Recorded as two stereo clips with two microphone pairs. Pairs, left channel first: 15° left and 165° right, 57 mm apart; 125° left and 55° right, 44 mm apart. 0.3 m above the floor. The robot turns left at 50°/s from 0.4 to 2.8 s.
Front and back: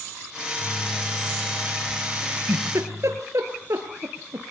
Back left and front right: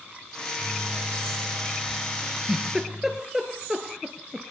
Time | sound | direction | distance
0.4 | a microwave | 30° left | 0.9 m
2.2 | a giggle | 105° right | 2.5 m